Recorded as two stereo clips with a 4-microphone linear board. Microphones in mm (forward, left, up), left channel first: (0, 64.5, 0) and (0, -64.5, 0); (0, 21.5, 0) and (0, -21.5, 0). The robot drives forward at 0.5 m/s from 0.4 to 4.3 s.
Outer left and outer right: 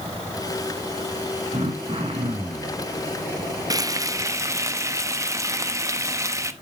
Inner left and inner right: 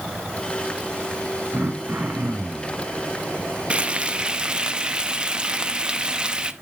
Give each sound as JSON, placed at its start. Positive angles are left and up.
{"t": 1.5, "sound": "throat clearing", "side_deg": -55, "distance_m": 2.0}
{"t": 3.7, "sound": "frying", "side_deg": -25, "distance_m": 0.6}